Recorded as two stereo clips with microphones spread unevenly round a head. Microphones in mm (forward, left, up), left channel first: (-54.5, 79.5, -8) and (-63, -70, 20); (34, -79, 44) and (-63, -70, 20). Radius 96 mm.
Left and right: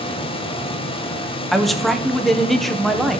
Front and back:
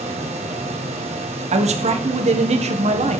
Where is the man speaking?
175° left, 1.5 m.